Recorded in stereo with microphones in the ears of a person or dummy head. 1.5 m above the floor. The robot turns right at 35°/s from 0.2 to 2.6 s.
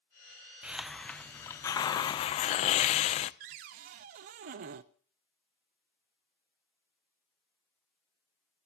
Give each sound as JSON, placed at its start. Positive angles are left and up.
{"t": 0.6, "sound": "a hiss", "azimuth_deg": -15, "distance_m": 0.5}
{"t": 3.4, "sound": "a cupboard door", "side_deg": -45, "distance_m": 0.6}